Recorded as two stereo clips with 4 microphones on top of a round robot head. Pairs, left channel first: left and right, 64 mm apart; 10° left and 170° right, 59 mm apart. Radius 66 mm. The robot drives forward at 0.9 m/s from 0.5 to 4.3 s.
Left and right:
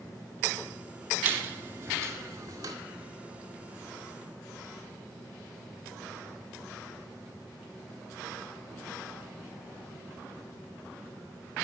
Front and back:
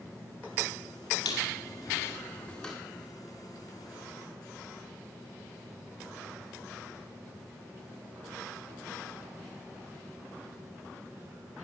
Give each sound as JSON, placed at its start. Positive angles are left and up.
{"t": 1.2, "sound": "a squeak", "azimuth_deg": -30, "distance_m": 2.0}